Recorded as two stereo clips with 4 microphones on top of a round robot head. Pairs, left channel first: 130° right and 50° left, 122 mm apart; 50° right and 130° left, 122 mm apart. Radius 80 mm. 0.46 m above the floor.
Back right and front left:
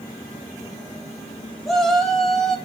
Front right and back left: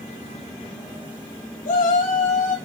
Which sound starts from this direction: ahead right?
A shout, at 1.6 s.